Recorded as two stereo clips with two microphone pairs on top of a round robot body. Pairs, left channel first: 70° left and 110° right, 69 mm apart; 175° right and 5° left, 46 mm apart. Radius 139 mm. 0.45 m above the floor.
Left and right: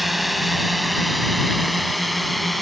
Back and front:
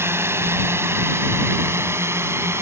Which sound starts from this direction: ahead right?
A drone, at 0.0 s.